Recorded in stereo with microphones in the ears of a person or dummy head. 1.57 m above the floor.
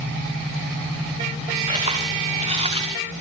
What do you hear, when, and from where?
1.7 s footsteps: 35° right (ahead or behind), 9 m; by 2.8 s 25° right (ahead or behind), 9 m